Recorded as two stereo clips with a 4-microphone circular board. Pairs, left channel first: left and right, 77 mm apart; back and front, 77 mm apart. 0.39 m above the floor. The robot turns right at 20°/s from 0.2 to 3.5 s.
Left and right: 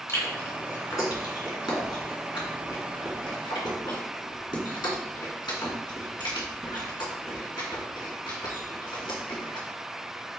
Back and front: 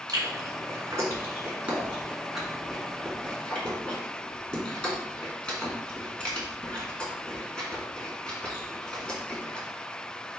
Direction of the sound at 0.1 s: 35° left.